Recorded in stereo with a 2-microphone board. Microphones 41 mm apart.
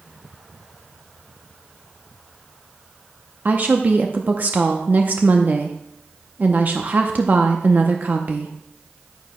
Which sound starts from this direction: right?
A woman speaking, at 3.5 s.